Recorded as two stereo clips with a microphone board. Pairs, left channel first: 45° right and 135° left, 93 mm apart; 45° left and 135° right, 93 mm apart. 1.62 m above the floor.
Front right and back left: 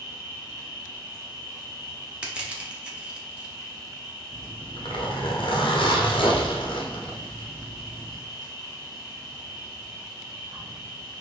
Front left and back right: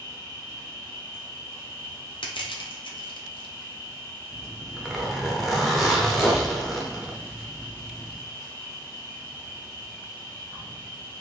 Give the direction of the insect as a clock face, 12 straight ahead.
9 o'clock.